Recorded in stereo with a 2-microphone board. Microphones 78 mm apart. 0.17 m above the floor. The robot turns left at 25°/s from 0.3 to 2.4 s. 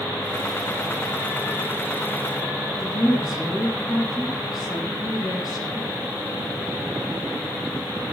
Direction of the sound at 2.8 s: 65° left (ahead or behind).